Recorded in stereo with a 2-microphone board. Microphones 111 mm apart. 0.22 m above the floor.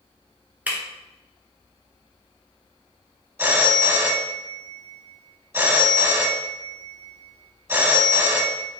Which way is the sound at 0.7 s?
15° right (ahead or behind).